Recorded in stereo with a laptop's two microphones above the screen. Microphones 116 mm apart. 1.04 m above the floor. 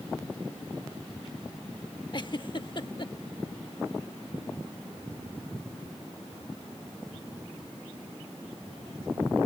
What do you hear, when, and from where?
2.1 s a giggle: 45° left (ahead or behind)